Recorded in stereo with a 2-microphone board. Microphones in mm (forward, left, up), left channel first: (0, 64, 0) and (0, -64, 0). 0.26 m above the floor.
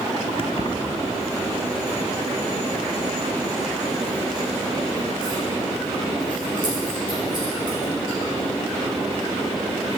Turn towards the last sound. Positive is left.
turn(degrees=35)  # may be behind; listen again after turning